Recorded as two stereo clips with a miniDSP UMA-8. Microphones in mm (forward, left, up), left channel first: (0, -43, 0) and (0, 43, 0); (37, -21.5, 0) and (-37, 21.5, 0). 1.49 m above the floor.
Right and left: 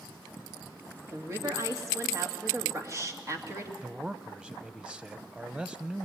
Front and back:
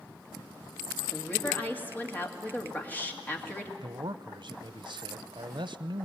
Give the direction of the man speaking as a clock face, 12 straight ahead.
6 o'clock.